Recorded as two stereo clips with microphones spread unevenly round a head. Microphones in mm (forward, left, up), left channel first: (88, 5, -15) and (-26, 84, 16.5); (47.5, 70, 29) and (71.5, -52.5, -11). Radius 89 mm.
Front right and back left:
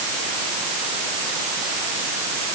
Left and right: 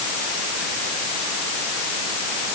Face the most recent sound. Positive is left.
No sound to turn to.